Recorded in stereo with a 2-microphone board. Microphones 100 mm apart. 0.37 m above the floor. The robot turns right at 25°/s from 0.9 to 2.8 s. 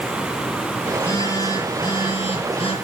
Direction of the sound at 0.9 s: 25° left.